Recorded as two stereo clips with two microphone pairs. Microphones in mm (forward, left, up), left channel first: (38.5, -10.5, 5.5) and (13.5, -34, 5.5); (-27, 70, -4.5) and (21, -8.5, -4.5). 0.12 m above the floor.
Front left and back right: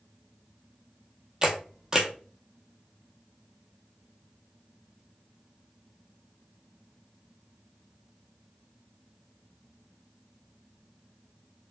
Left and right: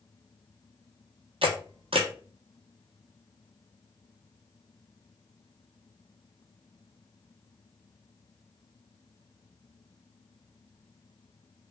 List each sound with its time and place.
1.4 s a camera shutter: 65° right, 0.8 m